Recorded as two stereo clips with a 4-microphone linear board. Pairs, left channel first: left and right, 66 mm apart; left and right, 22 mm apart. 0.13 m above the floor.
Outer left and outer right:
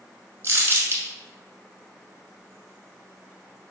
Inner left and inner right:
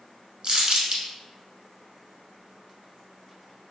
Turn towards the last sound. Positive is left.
turn(degrees=-35)  # may be behind; listen again after turning